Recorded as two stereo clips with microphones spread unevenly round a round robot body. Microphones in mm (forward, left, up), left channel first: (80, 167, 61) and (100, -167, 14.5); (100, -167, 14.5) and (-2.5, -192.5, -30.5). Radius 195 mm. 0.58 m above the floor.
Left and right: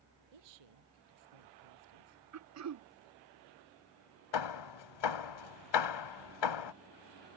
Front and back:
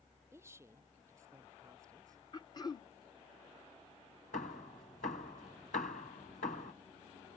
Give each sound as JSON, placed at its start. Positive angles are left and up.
{"t": 0.3, "sound": "a woman speaking", "azimuth_deg": -100}
{"t": 2.3, "sound": "throat clearing", "azimuth_deg": -50}
{"t": 4.3, "sound": "hammering", "azimuth_deg": 90}